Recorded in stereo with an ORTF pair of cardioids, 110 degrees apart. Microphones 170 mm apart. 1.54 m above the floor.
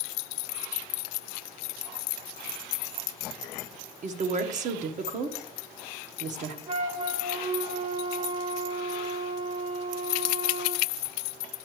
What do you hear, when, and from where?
4.0 s a woman speaking: 45° right, 1.4 m
6.7 s a flute: 70° right, 3.5 m